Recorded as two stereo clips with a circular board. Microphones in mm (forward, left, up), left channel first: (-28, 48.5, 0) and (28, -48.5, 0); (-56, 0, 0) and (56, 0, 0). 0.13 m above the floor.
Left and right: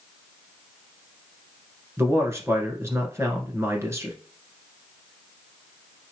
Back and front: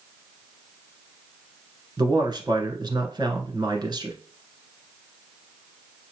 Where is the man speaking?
10° right, 1.3 m.